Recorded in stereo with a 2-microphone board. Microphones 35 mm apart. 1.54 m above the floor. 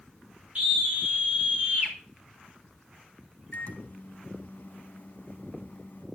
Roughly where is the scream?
Right.